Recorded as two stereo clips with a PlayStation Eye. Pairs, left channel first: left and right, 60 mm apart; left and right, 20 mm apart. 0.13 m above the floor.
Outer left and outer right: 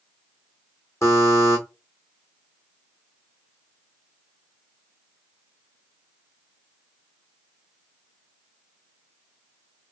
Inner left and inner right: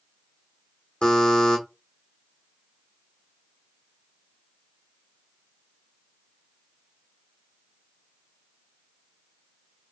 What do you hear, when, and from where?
1.0 s a buzzer: 55° left (ahead or behind), 1.4 m